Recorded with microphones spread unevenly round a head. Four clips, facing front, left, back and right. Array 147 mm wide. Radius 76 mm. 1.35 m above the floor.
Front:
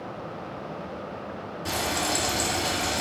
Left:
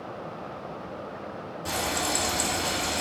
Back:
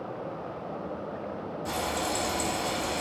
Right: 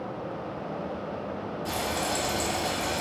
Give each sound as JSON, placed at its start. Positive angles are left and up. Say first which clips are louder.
{"t": 1.6, "sound": "frying", "louder": "left 1 dB, front 3 dB", "azimuth_deg": 15, "distance_m": 1.6}